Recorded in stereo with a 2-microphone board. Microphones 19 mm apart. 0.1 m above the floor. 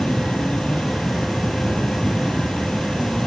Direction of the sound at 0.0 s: 65° left (ahead or behind).